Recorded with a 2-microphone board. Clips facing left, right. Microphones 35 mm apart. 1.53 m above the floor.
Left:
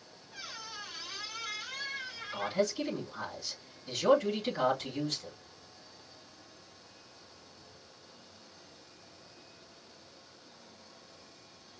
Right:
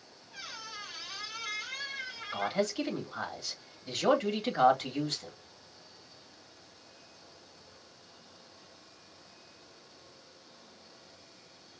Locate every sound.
0.3 s a squeak: 20° right (ahead or behind), 3.5 m
2.3 s a man speaking: 50° right (ahead or behind), 3 m